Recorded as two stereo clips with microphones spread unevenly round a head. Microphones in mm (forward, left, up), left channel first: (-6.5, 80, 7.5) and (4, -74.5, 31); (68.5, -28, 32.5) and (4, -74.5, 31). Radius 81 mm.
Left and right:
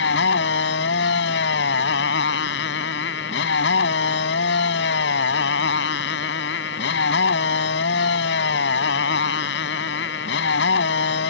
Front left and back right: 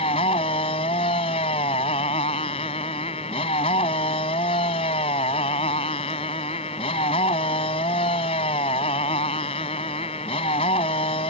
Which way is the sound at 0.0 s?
75° left.